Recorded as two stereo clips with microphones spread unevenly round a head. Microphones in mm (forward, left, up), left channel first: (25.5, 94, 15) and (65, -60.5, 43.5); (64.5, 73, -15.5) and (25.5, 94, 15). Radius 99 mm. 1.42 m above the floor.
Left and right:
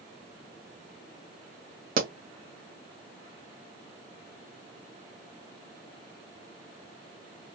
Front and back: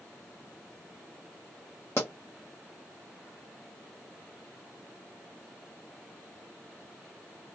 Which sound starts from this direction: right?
A pop, at 2.0 s.